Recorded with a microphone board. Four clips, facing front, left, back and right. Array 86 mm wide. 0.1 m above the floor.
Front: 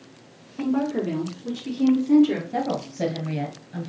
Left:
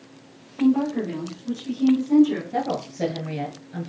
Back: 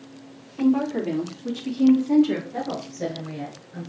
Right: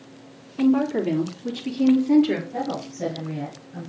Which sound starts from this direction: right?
A woman speaking, at 0.6 s.